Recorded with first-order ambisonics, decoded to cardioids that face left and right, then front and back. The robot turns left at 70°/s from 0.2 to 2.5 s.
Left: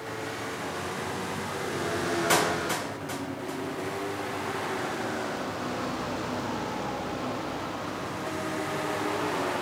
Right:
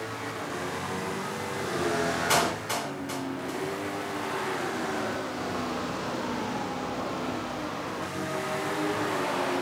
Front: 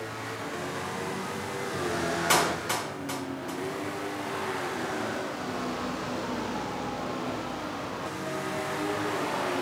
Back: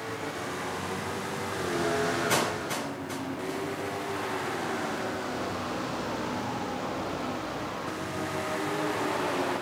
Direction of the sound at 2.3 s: 25° left.